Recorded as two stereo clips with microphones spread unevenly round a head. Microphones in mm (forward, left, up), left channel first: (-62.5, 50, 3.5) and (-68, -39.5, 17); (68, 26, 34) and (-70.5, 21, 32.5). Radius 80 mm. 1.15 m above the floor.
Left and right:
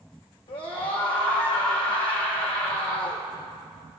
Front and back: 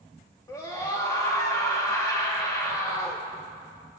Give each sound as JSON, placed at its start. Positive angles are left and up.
{"t": 0.5, "sound": "a scream", "azimuth_deg": 65, "distance_m": 2.5}